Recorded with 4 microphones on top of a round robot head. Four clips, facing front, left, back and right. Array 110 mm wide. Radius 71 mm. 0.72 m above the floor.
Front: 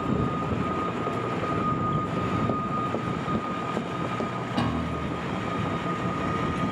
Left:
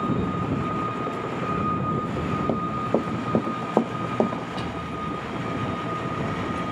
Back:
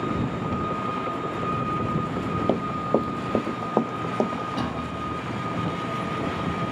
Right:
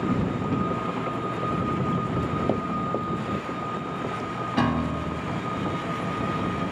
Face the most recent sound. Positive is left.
turn(degrees=-85)